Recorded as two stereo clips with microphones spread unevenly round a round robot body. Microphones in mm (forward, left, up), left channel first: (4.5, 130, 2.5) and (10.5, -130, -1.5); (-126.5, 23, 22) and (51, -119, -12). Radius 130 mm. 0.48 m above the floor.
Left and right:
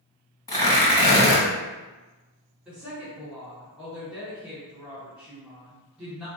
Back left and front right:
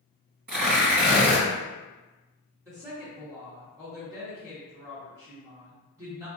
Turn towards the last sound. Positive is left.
turn(degrees=-15)